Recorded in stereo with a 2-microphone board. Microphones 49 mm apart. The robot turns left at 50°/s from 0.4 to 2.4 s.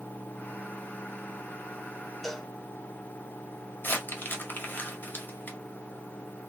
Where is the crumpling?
40° left (ahead or behind), 1.6 m.